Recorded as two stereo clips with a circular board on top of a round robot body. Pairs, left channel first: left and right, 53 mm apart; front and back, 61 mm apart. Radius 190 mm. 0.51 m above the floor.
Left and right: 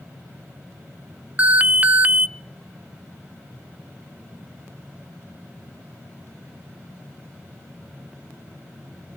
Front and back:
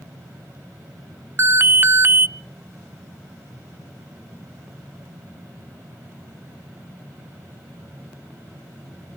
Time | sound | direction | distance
1.4 | an alarm | 145° right | 0.7 m